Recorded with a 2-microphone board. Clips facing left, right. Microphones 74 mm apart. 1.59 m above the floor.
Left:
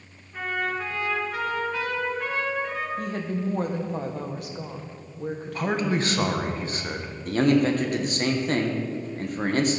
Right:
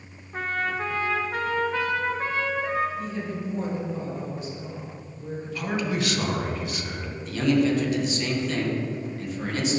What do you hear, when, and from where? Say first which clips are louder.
0.3 s a trumpet: right 1 dB; 40° right (ahead or behind), 1.4 m
3.0 s a woman speaking: left 2 dB; 60° left (ahead or behind), 1.2 m
5.5 s a man speaking: left 2 dB; 35° left (ahead or behind), 1.1 m
7.2 s a man speaking: left 2 dB; 45° left (ahead or behind), 1.2 m